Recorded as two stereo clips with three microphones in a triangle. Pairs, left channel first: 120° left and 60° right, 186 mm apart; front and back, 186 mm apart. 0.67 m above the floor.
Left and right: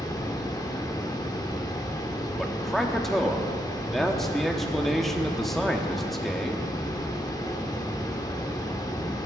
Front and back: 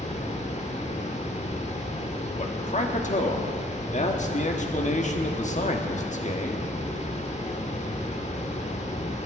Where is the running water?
50° left, 1.2 m.